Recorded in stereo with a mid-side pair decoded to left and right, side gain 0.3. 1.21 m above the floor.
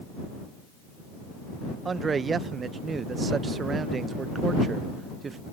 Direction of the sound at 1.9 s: 60° right.